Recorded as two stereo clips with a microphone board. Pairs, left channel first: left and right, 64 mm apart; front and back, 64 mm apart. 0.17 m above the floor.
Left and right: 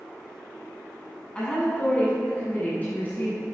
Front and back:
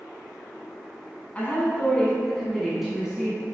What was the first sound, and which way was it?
A woman speaking, 30° left.